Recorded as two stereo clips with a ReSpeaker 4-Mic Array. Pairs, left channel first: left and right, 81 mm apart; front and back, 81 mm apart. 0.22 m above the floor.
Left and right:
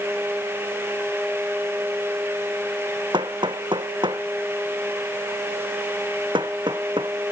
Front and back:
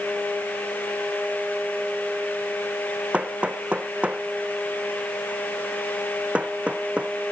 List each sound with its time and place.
3.1 s hammering: 105° right